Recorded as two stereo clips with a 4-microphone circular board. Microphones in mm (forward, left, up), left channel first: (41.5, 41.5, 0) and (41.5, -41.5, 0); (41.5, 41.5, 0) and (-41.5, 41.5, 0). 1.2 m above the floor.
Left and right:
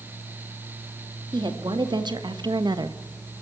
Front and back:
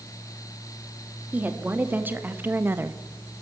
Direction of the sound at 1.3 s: 110° right.